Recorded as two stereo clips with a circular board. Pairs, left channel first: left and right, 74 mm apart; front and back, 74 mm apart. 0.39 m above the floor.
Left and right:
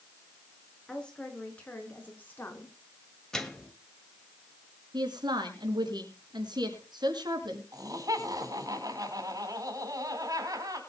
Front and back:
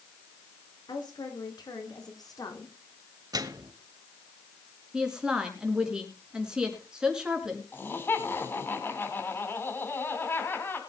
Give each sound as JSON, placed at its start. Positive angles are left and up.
{"t": 0.9, "sound": "a woman speaking", "azimuth_deg": 10, "distance_m": 4.5}
{"t": 3.3, "sound": "a microwave", "azimuth_deg": 170, "distance_m": 1.5}
{"t": 4.9, "sound": "a woman speaking", "azimuth_deg": -100, "distance_m": 4.0}
{"t": 7.7, "sound": "laughter", "azimuth_deg": -60, "distance_m": 3.0}